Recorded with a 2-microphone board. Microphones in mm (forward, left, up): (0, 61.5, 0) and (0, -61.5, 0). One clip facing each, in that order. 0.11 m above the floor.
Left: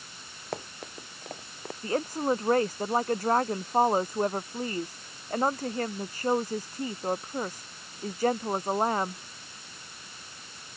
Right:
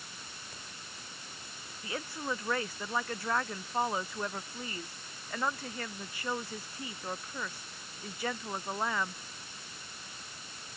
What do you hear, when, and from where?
0.5 s running footsteps: 70° left (ahead or behind)
1.8 s a woman speaking: 40° left (ahead or behind)